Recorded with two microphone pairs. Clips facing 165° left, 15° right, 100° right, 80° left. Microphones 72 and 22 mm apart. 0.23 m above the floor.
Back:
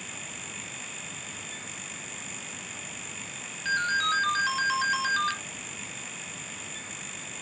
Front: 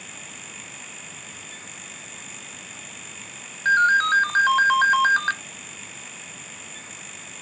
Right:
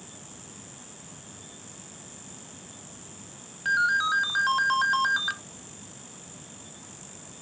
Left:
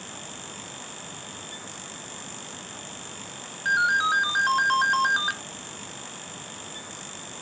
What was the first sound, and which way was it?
A ringtone, straight ahead.